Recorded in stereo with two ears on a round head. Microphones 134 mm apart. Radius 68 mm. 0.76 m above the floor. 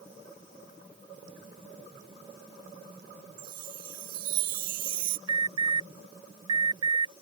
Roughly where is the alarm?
Right.